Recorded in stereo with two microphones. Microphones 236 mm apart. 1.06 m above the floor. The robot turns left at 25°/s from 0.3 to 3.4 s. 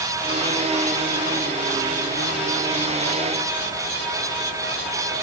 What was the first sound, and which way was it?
Only background noise.